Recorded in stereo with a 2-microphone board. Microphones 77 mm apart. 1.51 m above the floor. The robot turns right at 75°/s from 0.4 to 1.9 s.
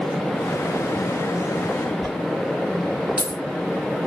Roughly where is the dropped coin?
Centre.